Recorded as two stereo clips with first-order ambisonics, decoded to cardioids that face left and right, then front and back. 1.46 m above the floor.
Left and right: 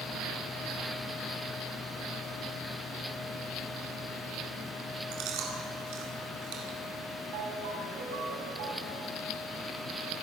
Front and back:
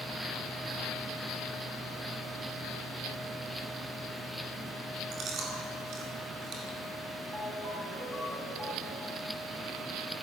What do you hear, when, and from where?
5.1 s chewing: 125° right, 4.5 m
7.3 s a ringtone: 95° right, 7.5 m